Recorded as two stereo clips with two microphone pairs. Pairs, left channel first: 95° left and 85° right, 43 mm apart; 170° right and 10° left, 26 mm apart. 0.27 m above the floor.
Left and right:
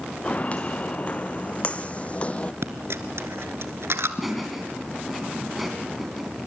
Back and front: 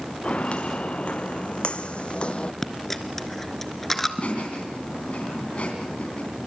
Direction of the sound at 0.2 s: 150° left.